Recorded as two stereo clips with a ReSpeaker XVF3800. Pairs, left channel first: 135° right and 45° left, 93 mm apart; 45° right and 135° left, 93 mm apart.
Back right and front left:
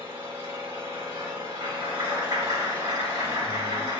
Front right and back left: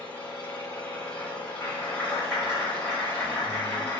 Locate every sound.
0.0 s an engine running: 25° left, 1.5 m
1.6 s a clap: 15° left, 1.6 m